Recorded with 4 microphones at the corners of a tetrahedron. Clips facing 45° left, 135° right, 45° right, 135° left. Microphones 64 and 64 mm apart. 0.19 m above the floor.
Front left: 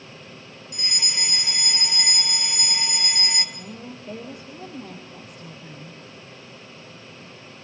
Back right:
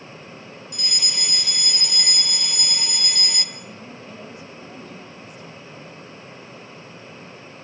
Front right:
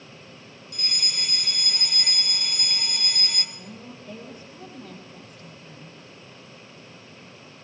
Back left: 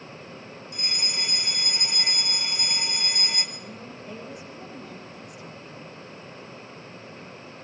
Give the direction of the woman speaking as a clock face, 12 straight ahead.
10 o'clock.